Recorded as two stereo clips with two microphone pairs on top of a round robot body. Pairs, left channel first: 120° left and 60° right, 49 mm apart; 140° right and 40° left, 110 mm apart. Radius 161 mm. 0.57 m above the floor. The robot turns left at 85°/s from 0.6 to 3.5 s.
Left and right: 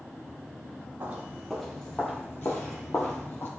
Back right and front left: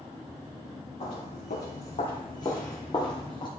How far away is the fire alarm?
No fire alarm in this recording.